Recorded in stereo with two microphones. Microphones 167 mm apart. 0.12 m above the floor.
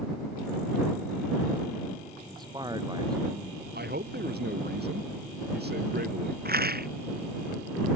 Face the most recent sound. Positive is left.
turn(degrees=-65)  # may be behind; listen again after turning